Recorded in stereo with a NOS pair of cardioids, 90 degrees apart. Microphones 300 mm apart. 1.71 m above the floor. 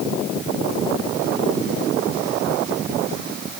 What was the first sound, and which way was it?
Only background noise.